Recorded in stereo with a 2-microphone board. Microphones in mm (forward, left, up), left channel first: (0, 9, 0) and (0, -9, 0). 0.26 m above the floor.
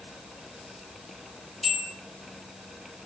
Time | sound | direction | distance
1.6 | a bell | 15° right (ahead or behind) | 1.8 m